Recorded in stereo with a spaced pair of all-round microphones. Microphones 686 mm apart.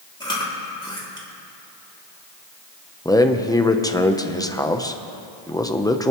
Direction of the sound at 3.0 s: 5° left (ahead or behind).